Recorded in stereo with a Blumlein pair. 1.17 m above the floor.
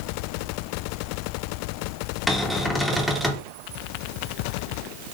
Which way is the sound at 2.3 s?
5° left.